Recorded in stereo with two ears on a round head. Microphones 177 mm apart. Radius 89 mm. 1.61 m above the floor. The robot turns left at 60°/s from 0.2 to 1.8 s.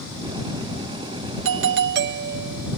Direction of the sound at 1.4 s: 80° right.